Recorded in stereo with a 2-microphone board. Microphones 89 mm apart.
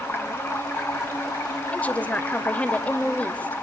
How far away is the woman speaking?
About 1.6 m.